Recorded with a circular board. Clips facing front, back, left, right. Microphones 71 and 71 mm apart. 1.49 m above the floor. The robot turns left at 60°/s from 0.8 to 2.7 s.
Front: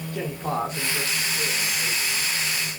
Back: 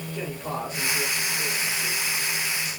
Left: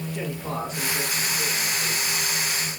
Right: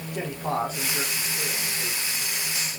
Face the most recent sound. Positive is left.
turn(degrees=-150)